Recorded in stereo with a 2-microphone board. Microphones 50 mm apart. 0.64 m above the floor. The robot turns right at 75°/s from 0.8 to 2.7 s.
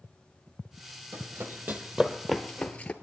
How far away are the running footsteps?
About 1.4 m.